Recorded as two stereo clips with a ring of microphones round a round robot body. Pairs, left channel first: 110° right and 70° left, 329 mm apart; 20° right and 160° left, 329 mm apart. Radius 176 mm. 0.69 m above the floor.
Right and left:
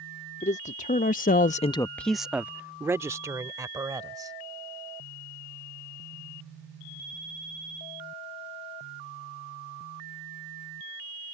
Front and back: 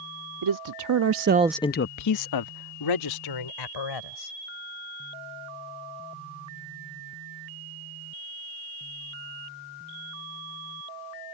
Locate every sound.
0.4 s a man speaking: straight behind; by 4.3 s 10° right